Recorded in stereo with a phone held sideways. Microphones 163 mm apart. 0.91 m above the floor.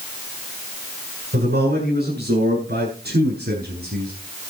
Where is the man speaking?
85° right, 9 m; by 4.1 s 80° right, 7.5 m.